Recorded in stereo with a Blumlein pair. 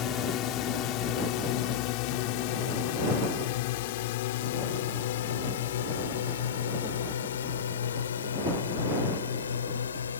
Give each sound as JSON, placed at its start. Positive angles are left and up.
{"t": 0.0, "sound": "a drone", "azimuth_deg": 35}